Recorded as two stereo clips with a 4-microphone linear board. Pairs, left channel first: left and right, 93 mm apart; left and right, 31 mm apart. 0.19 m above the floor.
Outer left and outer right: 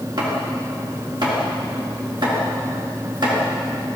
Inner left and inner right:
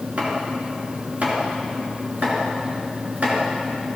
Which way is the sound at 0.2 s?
55° right (ahead or behind).